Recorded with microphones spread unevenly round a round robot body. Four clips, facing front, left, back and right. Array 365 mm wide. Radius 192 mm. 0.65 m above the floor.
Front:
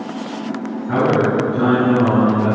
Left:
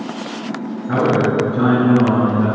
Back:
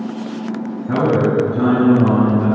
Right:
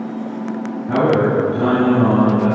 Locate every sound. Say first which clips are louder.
0.9 s a man speaking: right 1 dB, even; 165° right, 5 m